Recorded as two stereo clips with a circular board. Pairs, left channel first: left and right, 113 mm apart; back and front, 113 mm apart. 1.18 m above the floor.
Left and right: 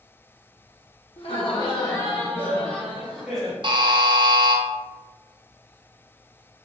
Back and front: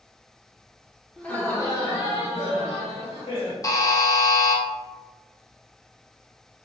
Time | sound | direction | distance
1.2 | laughter | 95° left | 1.0 m
3.6 | a buzzer | 125° right | 0.6 m